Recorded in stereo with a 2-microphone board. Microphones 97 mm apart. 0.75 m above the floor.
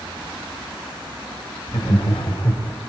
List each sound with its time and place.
1.7 s laughter: 75° left (ahead or behind), 3 m; by 2.8 s 50° left (ahead or behind), 3.5 m